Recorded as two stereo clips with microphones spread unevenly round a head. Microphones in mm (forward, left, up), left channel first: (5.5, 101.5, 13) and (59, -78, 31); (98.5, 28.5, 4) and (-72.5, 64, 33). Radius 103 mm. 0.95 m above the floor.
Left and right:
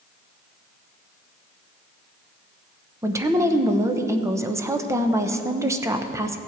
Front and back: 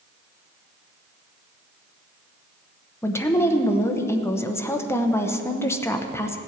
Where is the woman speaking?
5° right, 0.9 m.